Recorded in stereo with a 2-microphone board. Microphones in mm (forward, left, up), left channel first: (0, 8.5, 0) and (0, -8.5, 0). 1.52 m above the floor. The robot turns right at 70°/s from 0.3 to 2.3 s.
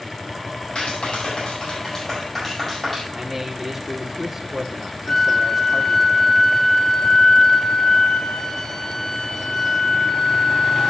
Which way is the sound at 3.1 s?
5° right (ahead or behind).